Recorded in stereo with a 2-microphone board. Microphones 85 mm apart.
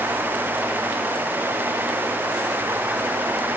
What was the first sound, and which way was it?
Only background noise.